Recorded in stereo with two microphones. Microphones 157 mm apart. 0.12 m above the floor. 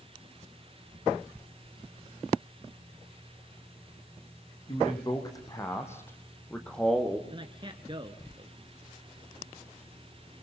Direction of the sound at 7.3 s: 30° right (ahead or behind).